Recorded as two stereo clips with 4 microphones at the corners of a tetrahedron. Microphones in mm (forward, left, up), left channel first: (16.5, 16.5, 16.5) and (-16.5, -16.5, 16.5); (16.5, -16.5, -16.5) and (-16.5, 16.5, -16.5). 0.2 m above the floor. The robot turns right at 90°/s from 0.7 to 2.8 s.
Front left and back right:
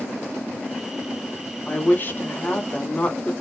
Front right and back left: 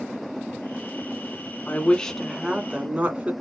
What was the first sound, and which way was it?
A woman speaking, 5° right.